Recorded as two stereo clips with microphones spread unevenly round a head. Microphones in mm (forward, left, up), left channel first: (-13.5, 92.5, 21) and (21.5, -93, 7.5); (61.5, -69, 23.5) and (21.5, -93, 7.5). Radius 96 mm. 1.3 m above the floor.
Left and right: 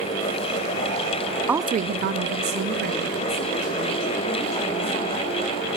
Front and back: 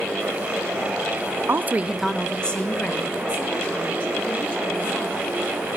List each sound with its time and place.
1.5 s a woman speaking: 160° right, 0.7 m; by 5.2 s 30° right, 5 m